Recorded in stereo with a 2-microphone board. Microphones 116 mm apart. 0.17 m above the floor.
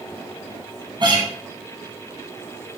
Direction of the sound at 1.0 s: 45° right (ahead or behind).